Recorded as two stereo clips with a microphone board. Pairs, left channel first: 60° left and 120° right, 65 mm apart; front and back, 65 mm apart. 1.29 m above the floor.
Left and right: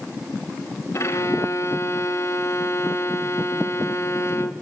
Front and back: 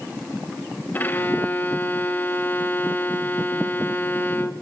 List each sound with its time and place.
0.9 s a violin: 50° left, 0.7 m